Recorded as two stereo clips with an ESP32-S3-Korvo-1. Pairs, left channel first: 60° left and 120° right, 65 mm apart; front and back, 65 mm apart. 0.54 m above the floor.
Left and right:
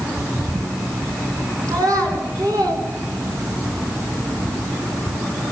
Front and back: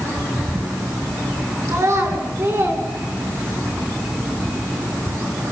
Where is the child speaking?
145° right, 5 m; by 3.7 s 125° right, 4.5 m.